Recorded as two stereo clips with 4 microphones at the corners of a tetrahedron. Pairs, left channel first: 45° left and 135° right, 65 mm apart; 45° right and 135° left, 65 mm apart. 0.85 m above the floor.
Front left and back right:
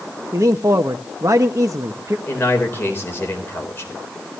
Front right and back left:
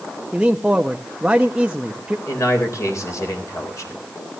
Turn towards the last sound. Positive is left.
turn(degrees=-10)